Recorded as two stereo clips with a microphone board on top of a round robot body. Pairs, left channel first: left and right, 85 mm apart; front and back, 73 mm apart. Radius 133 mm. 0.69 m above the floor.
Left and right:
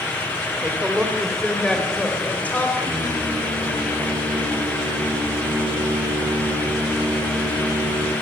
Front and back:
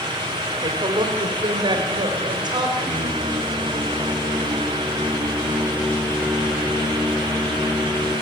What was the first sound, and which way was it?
A woman speaking, 165° right.